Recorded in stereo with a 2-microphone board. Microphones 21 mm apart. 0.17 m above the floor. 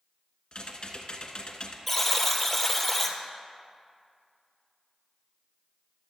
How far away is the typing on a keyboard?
About 1.2 m.